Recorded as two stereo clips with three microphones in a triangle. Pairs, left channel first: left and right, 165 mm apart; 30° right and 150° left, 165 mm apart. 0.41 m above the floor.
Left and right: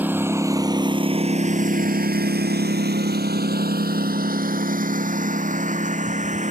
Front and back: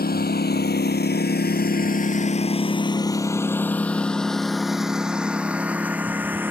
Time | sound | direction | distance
0.0 | a lawn mower | 10° right | ?